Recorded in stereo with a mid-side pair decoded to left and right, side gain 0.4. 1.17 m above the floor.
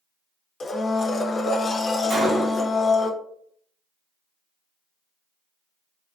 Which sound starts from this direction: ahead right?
A gunshot, at 2.1 s.